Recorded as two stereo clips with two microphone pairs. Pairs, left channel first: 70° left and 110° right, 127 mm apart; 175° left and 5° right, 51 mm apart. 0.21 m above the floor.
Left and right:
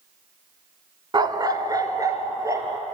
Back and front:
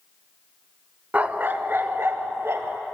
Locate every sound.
1.1 s a dog barking: 60° right, 0.8 m; by 2.8 s 45° right, 2 m